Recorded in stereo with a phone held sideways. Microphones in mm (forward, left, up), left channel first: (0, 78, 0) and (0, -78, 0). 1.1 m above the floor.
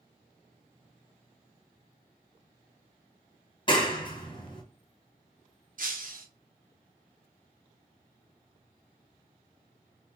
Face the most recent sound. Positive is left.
turn(degrees=-65)  # may be behind; listen again after turning